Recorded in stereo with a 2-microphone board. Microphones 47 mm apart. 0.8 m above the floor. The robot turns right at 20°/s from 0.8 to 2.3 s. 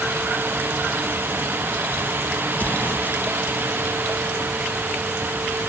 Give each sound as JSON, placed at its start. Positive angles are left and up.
{"t": 2.5, "sound": "an explosion", "side_deg": 35}